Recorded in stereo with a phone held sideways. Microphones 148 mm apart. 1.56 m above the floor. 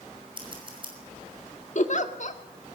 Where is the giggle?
60° left (ahead or behind), 1.7 m.